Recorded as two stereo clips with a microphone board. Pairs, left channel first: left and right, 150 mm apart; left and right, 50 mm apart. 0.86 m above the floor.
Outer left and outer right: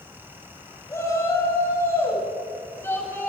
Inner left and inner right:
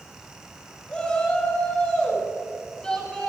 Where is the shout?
20° left (ahead or behind), 7.5 m; by 3.3 s 15° left (ahead or behind), 8.5 m.